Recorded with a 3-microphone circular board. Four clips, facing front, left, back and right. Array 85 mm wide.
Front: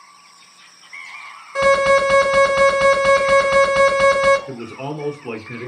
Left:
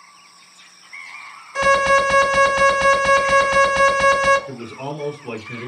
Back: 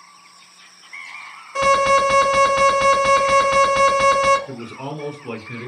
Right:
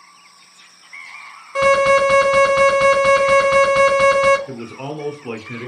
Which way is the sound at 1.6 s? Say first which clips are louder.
Right 2 dB, front 1 dB; 100° right.